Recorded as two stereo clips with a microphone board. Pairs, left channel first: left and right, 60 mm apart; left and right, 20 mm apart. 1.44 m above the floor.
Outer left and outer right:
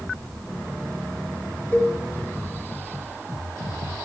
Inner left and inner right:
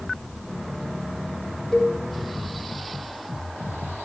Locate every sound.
1.7 s a cowbell: 30° left (ahead or behind), 4 m